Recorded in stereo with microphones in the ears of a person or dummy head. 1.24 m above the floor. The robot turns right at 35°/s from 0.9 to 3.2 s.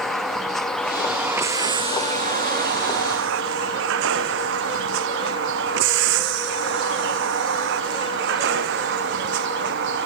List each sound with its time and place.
0.0 s a vehicle: centre (ahead or behind); by 10.1 s 70° right (ahead or behind)